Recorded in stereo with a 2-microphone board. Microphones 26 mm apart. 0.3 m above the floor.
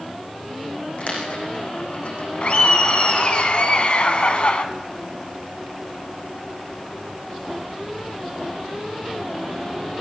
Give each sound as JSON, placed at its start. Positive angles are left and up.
{"t": 1.0, "sound": "a dropped coin", "side_deg": 55, "distance_m": 9.5}
{"t": 2.4, "sound": "laughter", "side_deg": 50, "distance_m": 2.5}